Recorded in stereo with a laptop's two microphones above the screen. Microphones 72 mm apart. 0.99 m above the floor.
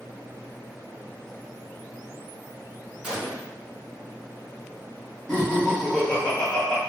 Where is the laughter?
10° left (ahead or behind), 1.8 m.